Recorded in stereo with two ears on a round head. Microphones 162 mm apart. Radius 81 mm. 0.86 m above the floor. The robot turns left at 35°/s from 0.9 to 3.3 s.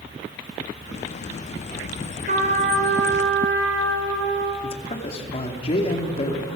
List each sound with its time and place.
2.3 s a trumpet: 45° right, 4 m; by 4.5 s 80° right, 4 m
4.6 s a man speaking: 35° left (ahead or behind), 2.5 m